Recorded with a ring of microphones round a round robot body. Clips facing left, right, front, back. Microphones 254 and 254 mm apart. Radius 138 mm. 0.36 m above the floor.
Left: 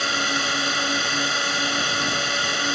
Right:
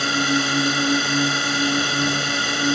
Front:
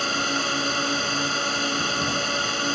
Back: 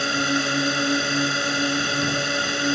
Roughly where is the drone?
Right.